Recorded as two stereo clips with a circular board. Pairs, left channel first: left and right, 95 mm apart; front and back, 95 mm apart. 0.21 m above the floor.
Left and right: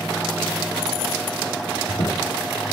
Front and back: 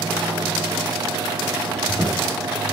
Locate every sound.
1.7 s a squeak: 105° left, 6.5 m